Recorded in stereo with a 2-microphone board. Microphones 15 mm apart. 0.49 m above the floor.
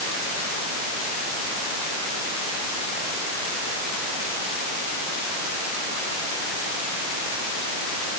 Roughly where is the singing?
No singing in this recording.